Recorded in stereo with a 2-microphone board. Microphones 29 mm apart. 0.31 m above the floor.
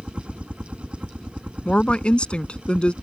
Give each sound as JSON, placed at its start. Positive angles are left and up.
{"t": 0.0, "sound": "a helicopter", "side_deg": -40}
{"t": 1.6, "sound": "a woman speaking", "side_deg": 40}